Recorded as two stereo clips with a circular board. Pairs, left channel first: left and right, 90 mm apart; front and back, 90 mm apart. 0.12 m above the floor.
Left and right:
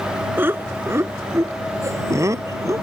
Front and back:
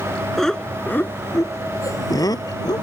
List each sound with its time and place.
0.4 s laughter: 80° right; by 2.9 s 35° right